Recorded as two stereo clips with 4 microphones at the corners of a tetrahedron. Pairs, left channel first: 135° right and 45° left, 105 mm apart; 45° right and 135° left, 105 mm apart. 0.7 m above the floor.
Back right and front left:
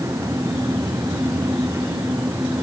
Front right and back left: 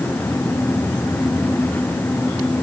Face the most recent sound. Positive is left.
No sound to turn to.